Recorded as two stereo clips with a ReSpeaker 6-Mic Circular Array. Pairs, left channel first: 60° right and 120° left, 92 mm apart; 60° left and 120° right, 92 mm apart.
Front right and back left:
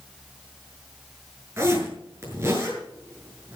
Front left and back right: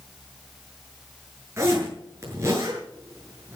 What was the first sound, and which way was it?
A zipper, straight behind.